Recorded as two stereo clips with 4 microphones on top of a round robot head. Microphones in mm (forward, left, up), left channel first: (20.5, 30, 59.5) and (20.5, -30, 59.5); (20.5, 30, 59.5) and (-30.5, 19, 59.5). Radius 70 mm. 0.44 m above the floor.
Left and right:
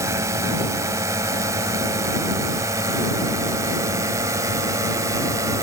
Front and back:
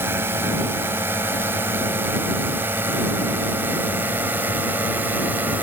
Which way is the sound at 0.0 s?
125° right.